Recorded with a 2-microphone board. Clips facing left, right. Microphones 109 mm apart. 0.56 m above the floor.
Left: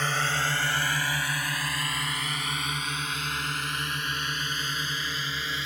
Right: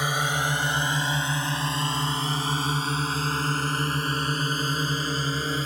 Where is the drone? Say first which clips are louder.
Right 2 dB; 10° right (ahead or behind); by 5.7 s 40° right (ahead or behind).